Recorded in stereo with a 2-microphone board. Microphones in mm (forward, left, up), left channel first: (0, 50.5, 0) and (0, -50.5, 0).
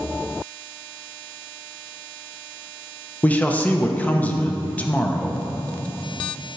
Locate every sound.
3.2 s a man speaking: 15° left (ahead or behind), 0.6 m